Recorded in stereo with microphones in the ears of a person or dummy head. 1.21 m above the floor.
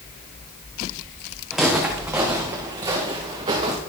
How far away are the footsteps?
About 3.5 m.